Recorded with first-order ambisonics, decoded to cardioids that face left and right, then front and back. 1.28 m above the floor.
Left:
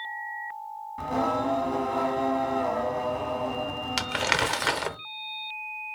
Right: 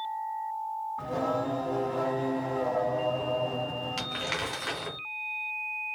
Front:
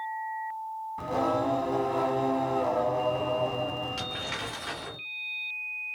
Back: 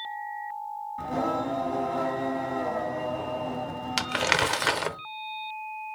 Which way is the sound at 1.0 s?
50° left.